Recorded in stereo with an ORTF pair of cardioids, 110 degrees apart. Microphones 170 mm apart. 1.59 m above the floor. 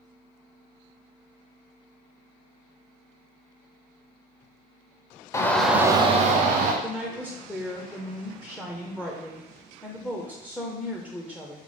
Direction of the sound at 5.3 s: 20° left.